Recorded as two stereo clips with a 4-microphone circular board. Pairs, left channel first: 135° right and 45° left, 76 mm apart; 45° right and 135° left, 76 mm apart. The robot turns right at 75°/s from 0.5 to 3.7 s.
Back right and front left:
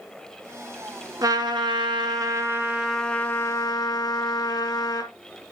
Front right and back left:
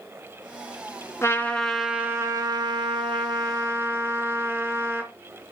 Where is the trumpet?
10° left, 1.5 m; by 5.1 s 165° right, 1.5 m.